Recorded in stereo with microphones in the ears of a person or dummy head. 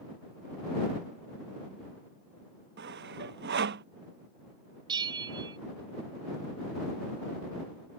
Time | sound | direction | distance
2.8 | sawing | 60° right (ahead or behind) | ?
4.9 | a bell | 25° right (ahead or behind) | ?